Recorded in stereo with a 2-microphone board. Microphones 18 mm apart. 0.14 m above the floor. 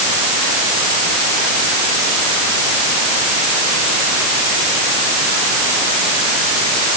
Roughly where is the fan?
No fan in this recording.